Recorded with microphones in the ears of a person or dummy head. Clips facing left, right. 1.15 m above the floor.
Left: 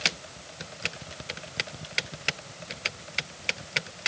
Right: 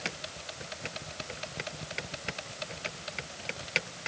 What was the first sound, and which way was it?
Only background noise.